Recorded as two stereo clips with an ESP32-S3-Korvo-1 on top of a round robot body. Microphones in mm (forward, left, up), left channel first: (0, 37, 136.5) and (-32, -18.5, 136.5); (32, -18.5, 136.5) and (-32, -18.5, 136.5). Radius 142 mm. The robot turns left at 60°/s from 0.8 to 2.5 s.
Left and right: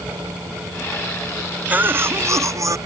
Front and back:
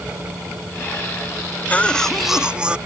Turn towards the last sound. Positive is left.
turn(degrees=-110)